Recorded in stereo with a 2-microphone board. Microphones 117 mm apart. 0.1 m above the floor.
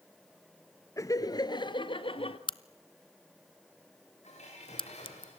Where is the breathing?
No breathing in this recording.